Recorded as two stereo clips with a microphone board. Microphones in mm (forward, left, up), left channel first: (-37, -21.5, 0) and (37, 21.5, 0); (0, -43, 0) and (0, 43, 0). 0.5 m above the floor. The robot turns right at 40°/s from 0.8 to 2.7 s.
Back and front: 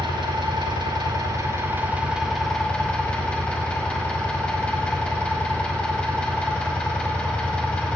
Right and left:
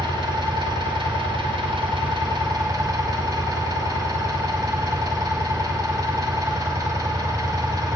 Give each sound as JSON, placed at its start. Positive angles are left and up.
{"t": 0.0, "sound": "an engine running", "azimuth_deg": 60, "distance_m": 1.2}